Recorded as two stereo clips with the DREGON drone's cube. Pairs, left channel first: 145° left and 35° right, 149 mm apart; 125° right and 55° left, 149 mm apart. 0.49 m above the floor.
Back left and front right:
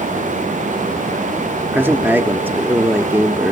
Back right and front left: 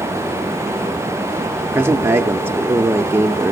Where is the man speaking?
15° left, 0.8 m.